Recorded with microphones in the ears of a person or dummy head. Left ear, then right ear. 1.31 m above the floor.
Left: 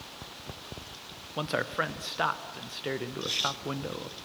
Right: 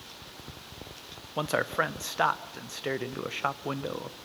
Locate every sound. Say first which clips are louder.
1.4 s a man speaking: right 2 dB; 15° right (ahead or behind), 0.6 m